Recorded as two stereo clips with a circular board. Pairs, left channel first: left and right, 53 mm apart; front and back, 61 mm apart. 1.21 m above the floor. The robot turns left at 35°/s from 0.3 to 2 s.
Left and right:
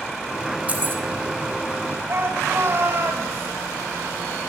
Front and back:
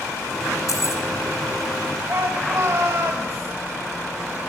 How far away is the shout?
About 6 m.